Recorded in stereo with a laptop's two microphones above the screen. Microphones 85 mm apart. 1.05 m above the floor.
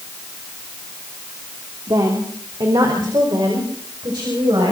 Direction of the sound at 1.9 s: 55° right (ahead or behind).